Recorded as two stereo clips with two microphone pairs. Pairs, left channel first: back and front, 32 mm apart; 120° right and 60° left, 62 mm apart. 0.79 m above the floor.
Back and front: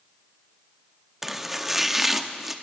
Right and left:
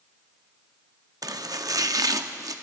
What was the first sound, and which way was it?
Chopping, 80° left.